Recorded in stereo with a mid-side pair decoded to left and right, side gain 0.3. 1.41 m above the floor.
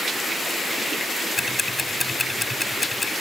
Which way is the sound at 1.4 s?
30° left.